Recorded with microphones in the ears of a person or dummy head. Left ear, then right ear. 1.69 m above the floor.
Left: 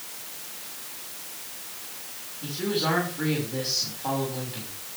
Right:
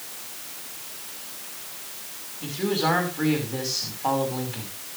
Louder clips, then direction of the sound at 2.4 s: Right 2 dB; 30° right (ahead or behind).